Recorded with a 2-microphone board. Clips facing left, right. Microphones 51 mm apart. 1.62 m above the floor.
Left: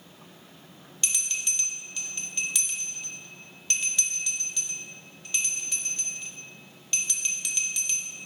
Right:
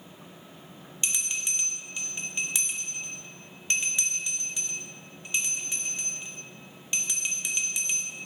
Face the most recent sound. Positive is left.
turn(degrees=-20)  # may be behind; listen again after turning